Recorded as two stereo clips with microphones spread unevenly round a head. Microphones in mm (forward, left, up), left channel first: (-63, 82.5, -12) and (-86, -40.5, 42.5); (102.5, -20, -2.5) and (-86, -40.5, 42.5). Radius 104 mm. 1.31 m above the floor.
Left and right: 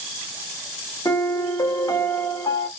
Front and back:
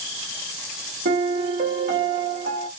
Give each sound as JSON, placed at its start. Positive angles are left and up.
{"t": 1.1, "sound": "a piano", "azimuth_deg": 155, "distance_m": 1.0}